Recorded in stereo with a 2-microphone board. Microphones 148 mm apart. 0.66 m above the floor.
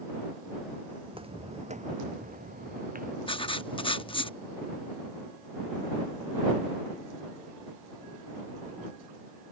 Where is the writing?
35° left (ahead or behind).